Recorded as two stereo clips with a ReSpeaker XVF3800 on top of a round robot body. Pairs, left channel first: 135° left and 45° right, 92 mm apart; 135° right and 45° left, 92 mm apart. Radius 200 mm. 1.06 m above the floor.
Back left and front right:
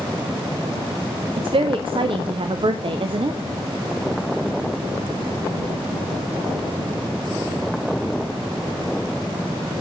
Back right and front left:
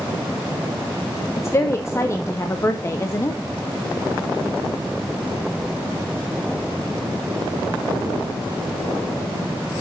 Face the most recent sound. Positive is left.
turn(degrees=-75)